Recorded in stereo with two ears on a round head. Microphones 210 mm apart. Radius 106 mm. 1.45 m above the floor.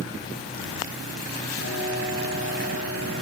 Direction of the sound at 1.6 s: 80° left.